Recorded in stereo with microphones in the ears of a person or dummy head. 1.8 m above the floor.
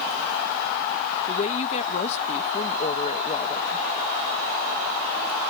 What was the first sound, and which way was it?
A woman speaking, 40° left (ahead or behind).